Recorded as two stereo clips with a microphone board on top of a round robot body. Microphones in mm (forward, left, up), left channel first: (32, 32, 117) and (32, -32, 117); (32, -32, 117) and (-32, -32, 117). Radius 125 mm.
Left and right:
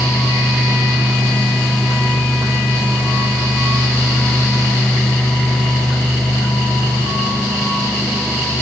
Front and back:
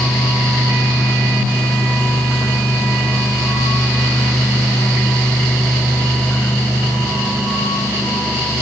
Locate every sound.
Only background noise.